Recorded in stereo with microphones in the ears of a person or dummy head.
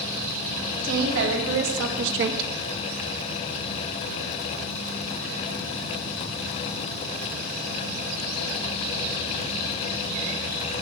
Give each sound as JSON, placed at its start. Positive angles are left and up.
{"t": 0.8, "sound": "a woman speaking", "side_deg": -70, "distance_m": 2.5}